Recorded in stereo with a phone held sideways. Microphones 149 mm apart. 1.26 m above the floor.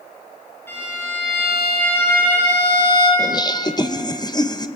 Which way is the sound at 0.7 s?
15° left (ahead or behind).